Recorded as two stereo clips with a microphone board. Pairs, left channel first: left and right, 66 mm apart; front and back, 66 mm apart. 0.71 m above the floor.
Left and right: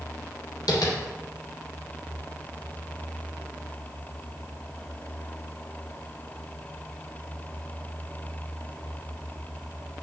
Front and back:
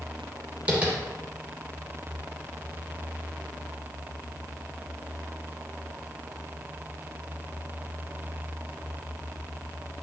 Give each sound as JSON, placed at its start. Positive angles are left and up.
{"t": 0.7, "sound": "tapping", "azimuth_deg": 105, "distance_m": 3.0}